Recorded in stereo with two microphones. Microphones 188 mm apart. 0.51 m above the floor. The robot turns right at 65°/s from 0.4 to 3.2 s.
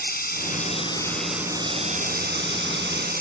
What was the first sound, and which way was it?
Running water, 125° left.